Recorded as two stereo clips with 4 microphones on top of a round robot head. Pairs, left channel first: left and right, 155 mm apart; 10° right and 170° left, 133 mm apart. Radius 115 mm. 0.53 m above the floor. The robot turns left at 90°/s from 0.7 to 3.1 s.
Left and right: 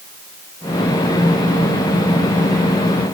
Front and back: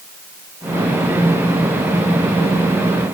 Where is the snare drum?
I don't hear a snare drum.